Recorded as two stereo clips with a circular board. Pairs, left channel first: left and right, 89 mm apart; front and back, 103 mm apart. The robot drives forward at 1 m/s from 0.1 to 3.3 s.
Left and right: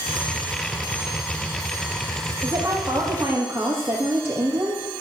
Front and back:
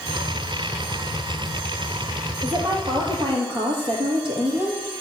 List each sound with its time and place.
2.4 s a woman speaking: 140° right, 3.5 m; by 4.8 s 150° right, 4 m